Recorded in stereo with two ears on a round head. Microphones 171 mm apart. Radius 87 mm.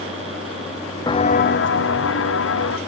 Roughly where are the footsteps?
Left.